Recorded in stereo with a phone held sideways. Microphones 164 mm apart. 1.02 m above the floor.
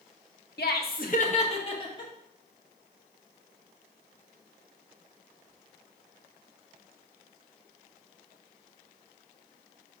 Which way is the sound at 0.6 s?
80° left.